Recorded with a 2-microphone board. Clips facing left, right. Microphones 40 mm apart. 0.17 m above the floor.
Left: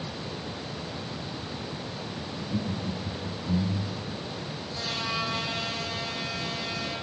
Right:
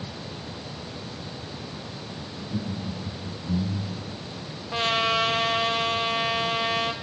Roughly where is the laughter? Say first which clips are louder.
Even; left.